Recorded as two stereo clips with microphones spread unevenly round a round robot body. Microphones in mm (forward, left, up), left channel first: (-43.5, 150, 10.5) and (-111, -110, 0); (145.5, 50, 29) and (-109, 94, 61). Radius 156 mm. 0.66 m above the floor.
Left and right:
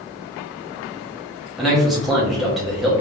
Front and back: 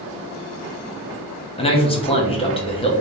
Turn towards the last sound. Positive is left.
turn(degrees=-20)